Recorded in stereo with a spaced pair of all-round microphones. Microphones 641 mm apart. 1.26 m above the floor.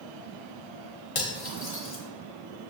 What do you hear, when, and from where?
1.1 s cutlery clinking: 50° left (ahead or behind), 0.9 m